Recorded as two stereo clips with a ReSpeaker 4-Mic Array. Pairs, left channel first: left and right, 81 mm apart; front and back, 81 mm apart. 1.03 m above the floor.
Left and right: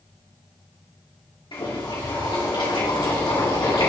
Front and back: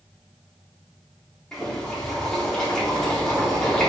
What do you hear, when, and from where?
1.5 s boiling: 80° left, 3 m